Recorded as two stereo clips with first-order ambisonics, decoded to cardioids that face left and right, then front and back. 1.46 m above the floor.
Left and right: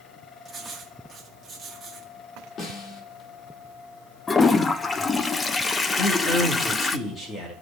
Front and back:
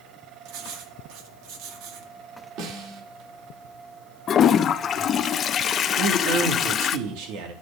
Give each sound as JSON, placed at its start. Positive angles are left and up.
{"t": 0.5, "sound": "writing", "azimuth_deg": -170, "distance_m": 2.0}
{"t": 2.6, "sound": "a snare drum", "azimuth_deg": 150, "distance_m": 2.5}
{"t": 4.3, "sound": "a toilet flushing", "azimuth_deg": 35, "distance_m": 0.7}
{"t": 6.0, "sound": "a man speaking", "azimuth_deg": 165, "distance_m": 2.5}